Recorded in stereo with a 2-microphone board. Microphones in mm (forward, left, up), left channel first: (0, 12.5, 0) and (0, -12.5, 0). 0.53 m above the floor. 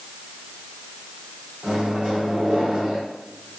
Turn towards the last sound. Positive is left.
turn(degrees=-35)  # may be behind; listen again after turning